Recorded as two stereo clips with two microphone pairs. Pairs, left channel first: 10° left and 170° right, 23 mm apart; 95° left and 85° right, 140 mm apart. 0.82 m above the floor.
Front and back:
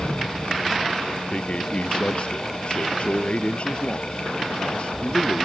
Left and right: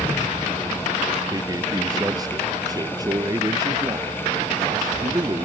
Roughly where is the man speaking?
Ahead.